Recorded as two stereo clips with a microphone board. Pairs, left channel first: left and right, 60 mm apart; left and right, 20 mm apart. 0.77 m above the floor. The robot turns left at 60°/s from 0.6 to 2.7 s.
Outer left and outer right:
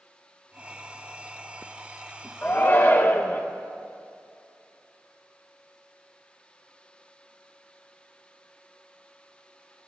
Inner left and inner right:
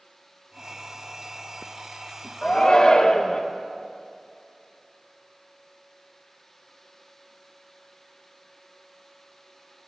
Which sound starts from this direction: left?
A shout, at 2.4 s.